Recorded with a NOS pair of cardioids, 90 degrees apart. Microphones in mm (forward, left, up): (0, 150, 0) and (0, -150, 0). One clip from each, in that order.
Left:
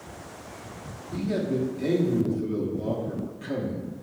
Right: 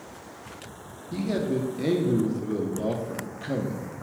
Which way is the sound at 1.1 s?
30° right.